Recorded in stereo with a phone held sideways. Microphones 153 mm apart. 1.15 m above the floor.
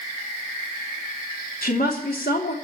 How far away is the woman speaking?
About 3 m.